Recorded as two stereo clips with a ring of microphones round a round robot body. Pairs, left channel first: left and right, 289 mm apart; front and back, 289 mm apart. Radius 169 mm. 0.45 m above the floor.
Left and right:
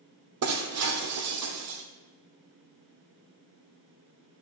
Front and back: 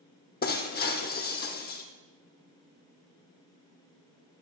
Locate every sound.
0.4 s breaking glass: 60° right, 1.3 m